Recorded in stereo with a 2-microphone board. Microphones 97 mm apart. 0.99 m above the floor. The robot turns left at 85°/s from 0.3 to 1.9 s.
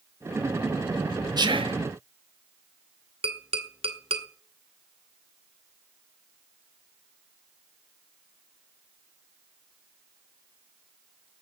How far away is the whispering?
About 1.8 m.